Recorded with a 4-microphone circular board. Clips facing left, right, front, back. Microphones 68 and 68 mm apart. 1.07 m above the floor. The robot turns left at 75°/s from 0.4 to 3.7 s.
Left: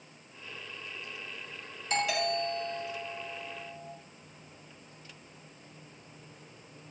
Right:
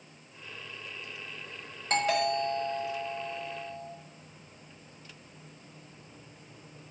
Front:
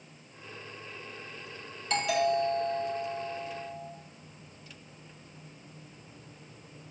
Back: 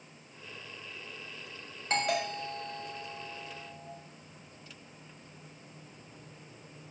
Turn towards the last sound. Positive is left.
turn(degrees=100)